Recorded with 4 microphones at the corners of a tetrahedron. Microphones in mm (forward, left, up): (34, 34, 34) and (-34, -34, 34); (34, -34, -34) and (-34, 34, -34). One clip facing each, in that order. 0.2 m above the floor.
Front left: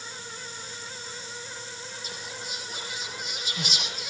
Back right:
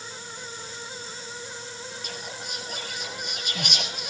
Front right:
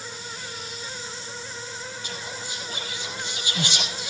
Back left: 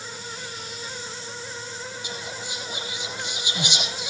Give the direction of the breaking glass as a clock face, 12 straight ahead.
No breaking glass in this recording.